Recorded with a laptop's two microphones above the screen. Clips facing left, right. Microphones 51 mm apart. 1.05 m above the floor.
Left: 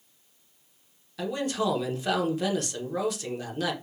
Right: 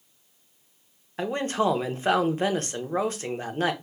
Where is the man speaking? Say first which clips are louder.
Right 3 dB; 35° right (ahead or behind), 0.6 m.